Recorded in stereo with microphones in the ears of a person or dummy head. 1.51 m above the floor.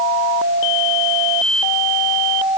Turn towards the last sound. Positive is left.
No sound to turn to.